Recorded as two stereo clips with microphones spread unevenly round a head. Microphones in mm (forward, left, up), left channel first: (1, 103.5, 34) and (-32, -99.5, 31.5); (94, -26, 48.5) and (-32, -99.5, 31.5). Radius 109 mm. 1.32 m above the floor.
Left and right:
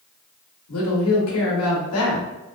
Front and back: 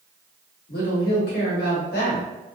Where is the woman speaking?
60° left, 1.0 m.